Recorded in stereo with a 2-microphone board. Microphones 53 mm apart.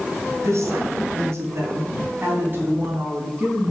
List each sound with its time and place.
0.4 s a woman speaking: 70° right (ahead or behind), 2.5 m; by 3.7 s 25° right (ahead or behind), 3.5 m